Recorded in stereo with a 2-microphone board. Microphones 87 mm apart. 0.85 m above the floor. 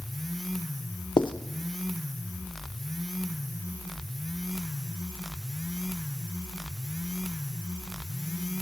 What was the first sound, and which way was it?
Writing, 65° left (ahead or behind).